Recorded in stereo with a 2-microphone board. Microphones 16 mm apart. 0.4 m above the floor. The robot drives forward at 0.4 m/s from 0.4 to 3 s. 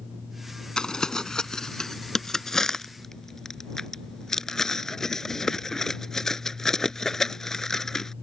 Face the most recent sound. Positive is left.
turn(degrees=25)  # may be behind; listen again after turning